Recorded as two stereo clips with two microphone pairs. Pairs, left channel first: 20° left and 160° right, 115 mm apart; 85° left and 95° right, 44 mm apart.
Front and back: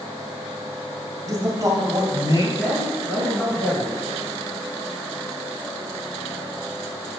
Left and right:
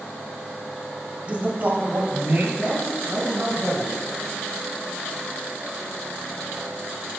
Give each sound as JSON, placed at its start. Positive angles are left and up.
{"t": 1.2, "sound": "a man speaking", "azimuth_deg": -135, "distance_m": 1.1}
{"t": 2.6, "sound": "a man speaking", "azimuth_deg": -75, "distance_m": 3.5}